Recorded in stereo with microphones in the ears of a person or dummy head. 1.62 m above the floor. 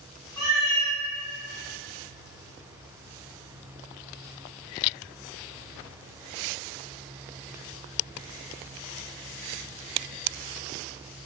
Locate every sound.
0.4 s a cat meowing: 5° left (ahead or behind), 0.8 m